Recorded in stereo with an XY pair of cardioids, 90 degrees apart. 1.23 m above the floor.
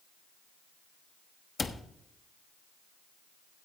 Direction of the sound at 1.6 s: 30° left.